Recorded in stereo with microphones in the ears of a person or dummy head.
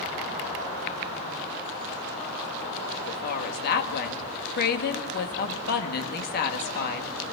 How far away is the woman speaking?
About 2 m.